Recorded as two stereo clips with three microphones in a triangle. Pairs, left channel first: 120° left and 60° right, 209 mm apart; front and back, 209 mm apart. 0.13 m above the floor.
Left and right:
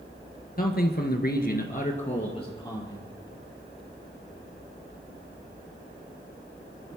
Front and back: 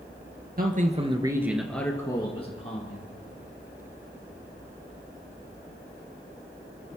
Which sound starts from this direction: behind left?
A man speaking, at 0.6 s.